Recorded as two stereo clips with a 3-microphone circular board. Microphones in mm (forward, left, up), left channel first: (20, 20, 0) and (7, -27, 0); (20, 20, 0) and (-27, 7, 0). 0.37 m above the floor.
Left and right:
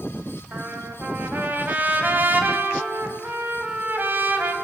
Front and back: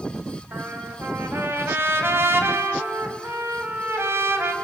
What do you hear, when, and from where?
0.5 s a trumpet: 145° right, 2 m